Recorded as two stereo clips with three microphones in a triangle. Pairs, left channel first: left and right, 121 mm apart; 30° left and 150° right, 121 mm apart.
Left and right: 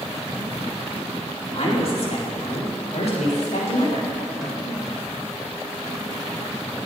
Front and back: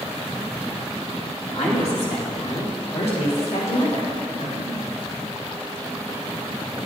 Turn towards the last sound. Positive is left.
turn(degrees=0)